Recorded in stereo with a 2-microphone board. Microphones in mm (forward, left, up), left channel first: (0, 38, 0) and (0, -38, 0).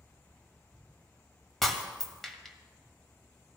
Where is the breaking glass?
5° left (ahead or behind), 1.3 m.